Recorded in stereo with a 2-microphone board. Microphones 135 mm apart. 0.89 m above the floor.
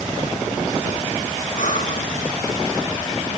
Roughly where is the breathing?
Left.